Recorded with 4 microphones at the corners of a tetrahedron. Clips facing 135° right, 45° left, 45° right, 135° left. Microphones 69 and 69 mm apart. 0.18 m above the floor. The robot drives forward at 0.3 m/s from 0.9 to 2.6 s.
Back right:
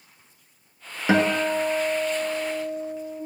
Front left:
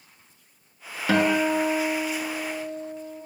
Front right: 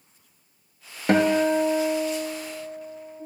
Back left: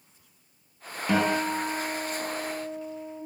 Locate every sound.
1.1 s a guitar: 65° right, 0.5 m; by 3.2 s 120° right, 0.5 m